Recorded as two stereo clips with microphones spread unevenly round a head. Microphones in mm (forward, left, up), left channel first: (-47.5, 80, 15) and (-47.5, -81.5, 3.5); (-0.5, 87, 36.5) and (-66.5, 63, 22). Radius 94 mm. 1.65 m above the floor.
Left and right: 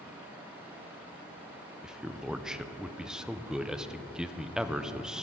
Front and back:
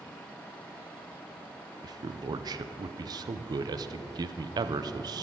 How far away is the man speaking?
About 0.6 m.